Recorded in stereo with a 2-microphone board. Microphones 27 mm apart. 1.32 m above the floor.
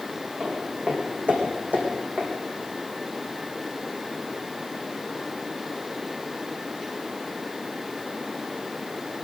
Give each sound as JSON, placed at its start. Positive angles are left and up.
{"t": 0.4, "sound": "footsteps", "side_deg": -45, "distance_m": 5.5}